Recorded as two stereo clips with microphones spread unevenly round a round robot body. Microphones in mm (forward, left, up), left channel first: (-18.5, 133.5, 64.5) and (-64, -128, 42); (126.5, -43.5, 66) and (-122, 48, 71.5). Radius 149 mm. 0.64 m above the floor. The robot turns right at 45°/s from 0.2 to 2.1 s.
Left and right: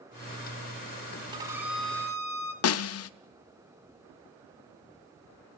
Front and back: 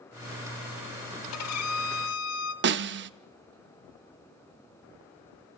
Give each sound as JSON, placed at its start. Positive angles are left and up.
{"t": 1.3, "sound": "a violin", "azimuth_deg": -25, "distance_m": 0.6}
{"t": 2.6, "sound": "a snare drum", "azimuth_deg": 115, "distance_m": 0.7}